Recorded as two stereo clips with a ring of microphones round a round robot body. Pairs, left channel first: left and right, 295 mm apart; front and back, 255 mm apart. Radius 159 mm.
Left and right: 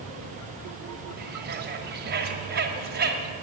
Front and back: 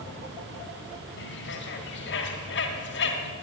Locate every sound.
1.2 s a bird: 40° right, 1.6 m